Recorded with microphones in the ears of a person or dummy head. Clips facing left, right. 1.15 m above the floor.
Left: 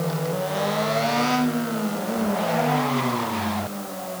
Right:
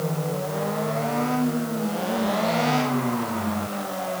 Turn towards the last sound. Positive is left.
No sound to turn to.